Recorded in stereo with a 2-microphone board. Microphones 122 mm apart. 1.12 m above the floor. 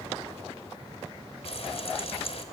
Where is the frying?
60° left (ahead or behind), 2 m.